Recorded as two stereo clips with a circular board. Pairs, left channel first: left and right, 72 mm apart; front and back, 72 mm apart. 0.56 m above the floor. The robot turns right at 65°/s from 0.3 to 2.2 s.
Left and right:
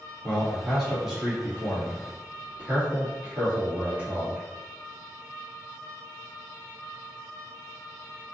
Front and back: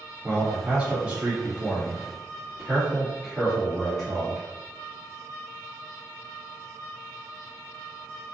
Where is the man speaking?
150° left, 1.3 m; by 4.5 s 90° right, 1.3 m.